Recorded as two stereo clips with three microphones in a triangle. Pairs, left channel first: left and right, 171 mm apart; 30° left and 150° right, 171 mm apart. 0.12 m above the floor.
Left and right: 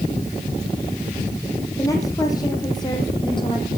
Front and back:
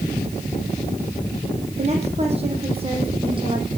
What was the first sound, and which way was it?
A woman speaking, 160° left.